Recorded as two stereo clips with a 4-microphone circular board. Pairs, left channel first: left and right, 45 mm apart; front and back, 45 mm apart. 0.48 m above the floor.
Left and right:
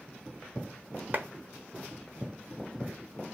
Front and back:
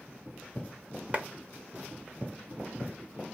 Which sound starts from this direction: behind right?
A clap, at 1.1 s.